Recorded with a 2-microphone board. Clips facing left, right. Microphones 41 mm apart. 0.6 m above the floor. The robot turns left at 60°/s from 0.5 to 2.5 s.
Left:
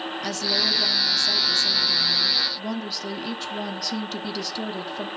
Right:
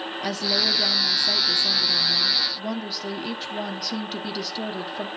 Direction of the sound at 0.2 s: 10° right (ahead or behind).